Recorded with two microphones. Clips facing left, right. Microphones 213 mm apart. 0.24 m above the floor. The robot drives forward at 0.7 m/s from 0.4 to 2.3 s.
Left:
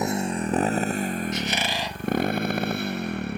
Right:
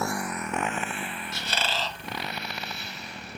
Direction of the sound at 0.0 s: 20° left (ahead or behind).